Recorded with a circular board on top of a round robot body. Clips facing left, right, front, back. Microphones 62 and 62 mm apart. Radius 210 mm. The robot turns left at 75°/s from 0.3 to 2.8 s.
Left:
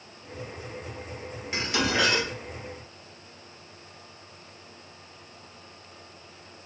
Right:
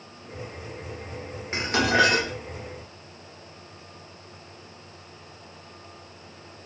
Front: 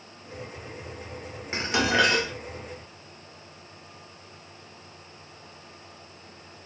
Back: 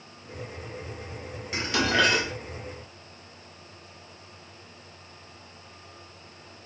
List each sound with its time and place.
1.5 s dishes clattering: 45° right, 0.9 m; by 2.3 s 105° right, 0.9 m